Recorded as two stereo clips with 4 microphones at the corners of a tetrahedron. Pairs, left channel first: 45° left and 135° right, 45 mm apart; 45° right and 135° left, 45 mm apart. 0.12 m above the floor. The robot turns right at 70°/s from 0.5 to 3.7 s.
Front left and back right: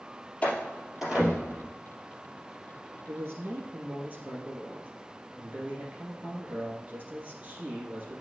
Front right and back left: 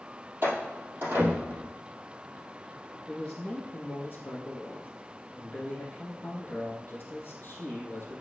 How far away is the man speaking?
About 3.5 m.